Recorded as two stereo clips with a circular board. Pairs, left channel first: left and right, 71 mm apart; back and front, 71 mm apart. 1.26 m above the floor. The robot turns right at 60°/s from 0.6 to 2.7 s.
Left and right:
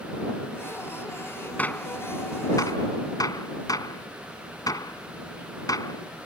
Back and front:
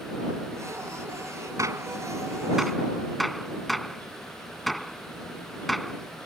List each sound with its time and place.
1.6 s a gunshot: 25° left; by 6.3 s 90° left